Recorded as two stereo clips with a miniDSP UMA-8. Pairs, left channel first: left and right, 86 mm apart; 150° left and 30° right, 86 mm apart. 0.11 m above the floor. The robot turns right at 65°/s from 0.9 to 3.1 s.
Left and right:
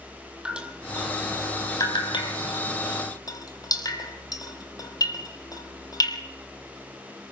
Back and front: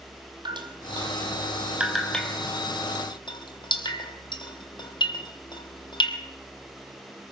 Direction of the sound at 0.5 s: 10° right.